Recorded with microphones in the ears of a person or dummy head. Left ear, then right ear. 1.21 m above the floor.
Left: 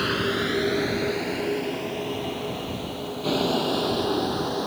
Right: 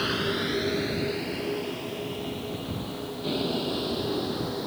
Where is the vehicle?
20° left (ahead or behind); by 4.7 s 45° left (ahead or behind).